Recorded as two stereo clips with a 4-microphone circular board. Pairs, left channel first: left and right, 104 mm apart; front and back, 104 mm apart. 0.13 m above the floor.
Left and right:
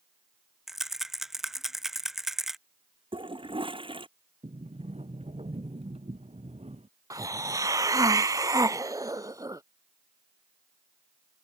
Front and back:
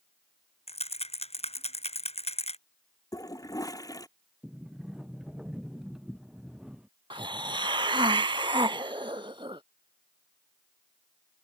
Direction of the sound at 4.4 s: 100° right.